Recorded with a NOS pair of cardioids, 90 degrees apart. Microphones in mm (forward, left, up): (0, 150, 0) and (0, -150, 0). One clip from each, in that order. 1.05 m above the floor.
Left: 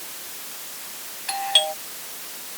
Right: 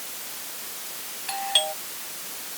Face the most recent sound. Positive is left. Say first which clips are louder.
# left 4 dB
turn(degrees=25)